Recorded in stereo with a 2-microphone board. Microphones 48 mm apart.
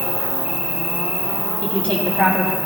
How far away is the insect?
About 6 m.